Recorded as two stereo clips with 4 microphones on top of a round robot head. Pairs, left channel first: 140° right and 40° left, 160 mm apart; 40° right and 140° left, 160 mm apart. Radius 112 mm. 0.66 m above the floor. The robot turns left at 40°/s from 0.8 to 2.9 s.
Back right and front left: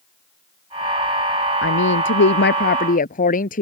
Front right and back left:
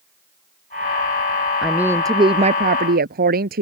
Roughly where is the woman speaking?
Behind right.